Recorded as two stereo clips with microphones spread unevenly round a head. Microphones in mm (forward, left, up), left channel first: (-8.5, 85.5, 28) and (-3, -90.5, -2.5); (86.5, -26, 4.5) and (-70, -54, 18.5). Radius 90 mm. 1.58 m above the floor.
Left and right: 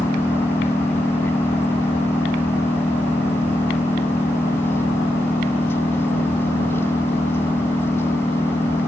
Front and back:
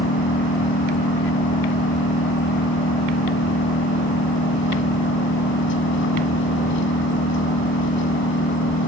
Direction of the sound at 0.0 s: 15° left.